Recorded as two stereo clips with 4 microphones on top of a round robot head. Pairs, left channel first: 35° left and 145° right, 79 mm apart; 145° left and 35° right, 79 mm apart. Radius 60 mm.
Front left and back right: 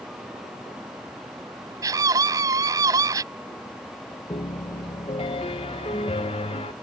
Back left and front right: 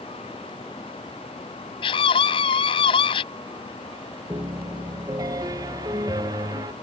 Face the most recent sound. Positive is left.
turn(degrees=15)